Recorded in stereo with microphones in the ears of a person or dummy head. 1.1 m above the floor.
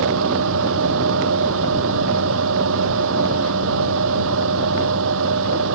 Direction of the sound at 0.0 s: 75° right (ahead or behind).